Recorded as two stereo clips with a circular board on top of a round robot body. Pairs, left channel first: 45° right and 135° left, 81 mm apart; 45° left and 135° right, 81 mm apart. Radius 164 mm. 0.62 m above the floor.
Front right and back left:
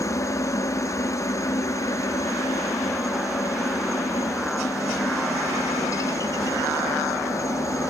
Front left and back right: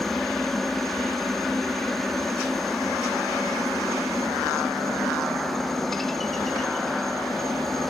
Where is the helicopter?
40° right.